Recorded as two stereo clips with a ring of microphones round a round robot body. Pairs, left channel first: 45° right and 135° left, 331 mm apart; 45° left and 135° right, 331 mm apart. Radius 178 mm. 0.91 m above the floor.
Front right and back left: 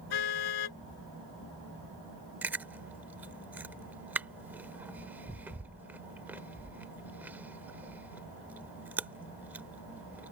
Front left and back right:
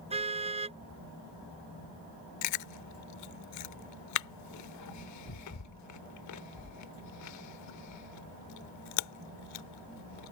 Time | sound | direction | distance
0.1 | a car horn | 65° right | ?
2.4 | chewing | 50° left | ?